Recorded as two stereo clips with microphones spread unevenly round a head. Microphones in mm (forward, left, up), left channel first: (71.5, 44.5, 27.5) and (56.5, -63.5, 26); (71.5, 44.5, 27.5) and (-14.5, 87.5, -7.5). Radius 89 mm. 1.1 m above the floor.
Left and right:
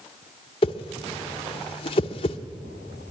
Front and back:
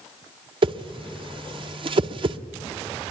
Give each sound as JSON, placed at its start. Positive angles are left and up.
{"t": 0.6, "sound": "a whoosh", "azimuth_deg": 135, "distance_m": 0.8}